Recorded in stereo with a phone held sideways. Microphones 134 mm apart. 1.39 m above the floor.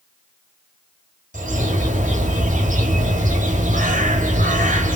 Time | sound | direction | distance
1.3 | a bird | 75° right (ahead or behind) | 1.2 m